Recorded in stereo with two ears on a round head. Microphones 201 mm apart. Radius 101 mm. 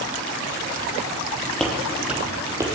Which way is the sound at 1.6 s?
5° left (ahead or behind).